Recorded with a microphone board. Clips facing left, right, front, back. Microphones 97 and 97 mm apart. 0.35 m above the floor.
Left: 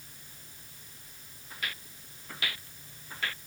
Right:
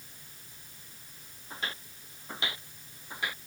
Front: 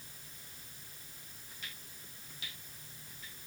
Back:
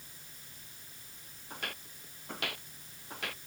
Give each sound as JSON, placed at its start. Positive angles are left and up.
{"t": 1.5, "sound": "footsteps", "azimuth_deg": -150}